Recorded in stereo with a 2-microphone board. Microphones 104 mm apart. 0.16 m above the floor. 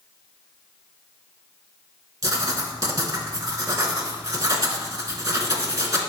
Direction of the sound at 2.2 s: 35° right (ahead or behind).